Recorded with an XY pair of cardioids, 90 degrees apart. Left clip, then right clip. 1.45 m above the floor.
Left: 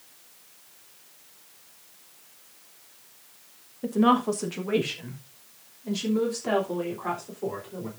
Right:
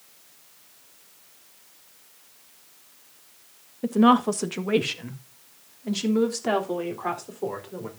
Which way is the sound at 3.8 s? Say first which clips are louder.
Right 3 dB; 30° right.